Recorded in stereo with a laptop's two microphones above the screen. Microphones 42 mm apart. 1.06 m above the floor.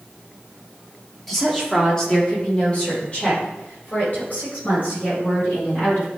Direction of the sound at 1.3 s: 5° left (ahead or behind).